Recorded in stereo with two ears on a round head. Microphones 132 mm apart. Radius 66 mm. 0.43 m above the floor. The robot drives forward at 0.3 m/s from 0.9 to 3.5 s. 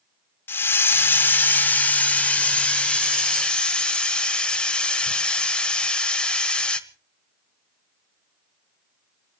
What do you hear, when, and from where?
0.5 s a hiss: 15° left (ahead or behind), 0.6 m; by 6.8 s 10° left (ahead or behind), 1.1 m